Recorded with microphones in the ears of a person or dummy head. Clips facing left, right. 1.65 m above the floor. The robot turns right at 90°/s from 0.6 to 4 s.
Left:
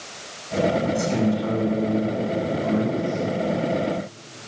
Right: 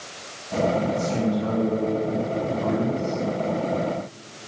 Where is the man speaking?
90° left, 6 m; by 3.2 s 60° right, 6 m.